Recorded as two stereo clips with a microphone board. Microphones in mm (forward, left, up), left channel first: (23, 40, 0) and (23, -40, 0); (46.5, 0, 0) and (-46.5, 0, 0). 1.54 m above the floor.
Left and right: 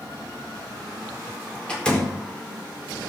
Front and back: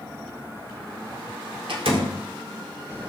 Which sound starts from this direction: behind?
A door slam, at 1.7 s.